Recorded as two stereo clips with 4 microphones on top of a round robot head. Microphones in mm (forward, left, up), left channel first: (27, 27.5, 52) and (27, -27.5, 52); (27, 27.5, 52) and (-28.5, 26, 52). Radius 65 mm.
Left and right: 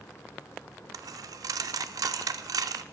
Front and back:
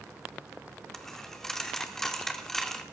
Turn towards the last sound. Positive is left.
turn(degrees=-80)